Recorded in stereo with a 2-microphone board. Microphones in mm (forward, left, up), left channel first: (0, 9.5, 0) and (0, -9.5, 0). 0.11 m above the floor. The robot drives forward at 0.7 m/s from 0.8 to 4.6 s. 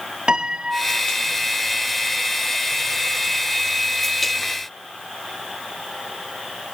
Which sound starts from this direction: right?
A piano, at 0.3 s.